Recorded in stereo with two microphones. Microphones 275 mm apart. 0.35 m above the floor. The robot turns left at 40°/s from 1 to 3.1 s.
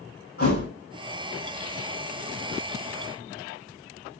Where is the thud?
55° left (ahead or behind), 1.9 m.